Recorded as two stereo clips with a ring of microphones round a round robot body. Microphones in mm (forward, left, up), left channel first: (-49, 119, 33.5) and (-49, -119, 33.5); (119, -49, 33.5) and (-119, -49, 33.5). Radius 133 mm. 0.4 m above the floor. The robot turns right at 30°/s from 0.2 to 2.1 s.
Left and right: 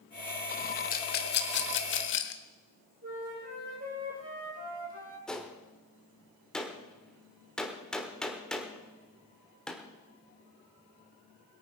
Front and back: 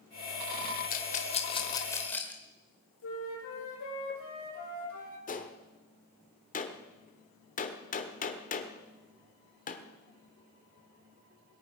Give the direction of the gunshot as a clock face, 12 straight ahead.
12 o'clock.